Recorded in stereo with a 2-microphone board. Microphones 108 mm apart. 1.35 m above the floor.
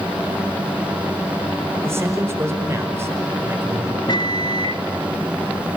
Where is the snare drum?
I don't hear a snare drum.